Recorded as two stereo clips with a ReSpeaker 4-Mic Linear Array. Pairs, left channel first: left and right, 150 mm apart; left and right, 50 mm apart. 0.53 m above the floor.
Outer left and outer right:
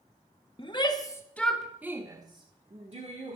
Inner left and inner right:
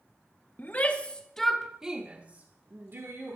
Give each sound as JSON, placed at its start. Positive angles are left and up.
{"t": 0.6, "sound": "a shout", "side_deg": 35, "distance_m": 1.0}